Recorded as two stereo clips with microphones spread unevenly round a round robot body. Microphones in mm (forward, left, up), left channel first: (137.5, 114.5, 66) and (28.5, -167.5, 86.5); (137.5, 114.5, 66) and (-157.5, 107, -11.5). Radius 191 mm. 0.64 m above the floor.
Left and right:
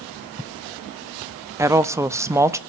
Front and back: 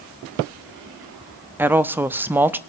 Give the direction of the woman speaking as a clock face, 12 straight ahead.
6 o'clock.